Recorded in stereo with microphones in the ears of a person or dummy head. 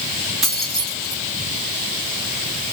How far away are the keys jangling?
About 1.9 m.